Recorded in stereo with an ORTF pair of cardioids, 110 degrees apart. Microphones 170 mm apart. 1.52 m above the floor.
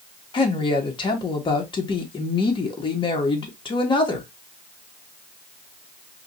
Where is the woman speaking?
30° left, 1.8 m.